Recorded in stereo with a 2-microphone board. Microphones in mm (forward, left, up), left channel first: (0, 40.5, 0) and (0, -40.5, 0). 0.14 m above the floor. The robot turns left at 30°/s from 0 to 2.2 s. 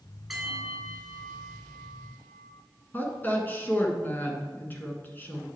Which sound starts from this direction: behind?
A bell, at 0.3 s.